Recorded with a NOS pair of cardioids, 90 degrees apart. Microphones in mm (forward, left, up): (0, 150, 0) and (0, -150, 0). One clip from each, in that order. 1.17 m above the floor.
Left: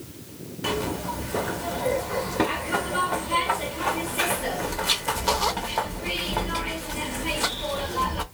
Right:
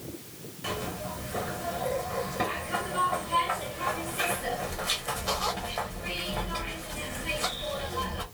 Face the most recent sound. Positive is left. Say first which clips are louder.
# left 6 dB
turn(degrees=30)